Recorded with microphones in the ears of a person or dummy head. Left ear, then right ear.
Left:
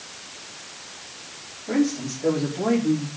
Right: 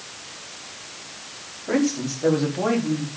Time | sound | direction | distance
1.7 | a man speaking | 55° right (ahead or behind) | 5 m